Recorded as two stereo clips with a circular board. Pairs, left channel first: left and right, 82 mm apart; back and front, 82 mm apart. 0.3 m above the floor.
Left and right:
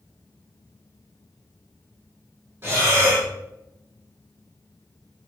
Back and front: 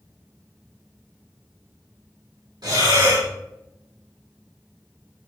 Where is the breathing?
30° right, 5 m.